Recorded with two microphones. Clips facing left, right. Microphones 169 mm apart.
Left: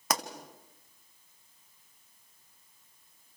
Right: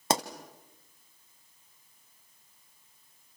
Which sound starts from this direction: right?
A pop, at 0.1 s.